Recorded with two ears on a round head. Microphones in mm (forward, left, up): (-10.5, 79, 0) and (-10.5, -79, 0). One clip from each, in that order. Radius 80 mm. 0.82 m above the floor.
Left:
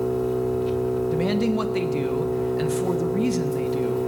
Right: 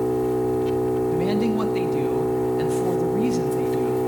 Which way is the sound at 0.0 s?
40° right (ahead or behind).